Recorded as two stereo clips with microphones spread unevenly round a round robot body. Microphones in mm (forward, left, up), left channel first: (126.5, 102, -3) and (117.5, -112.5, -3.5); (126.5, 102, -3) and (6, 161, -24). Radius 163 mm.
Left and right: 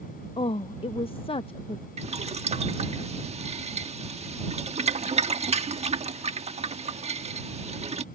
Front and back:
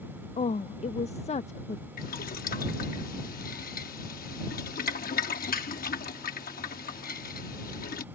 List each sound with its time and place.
0.4 s a woman speaking: 20° left
2.0 s boiling: 30° right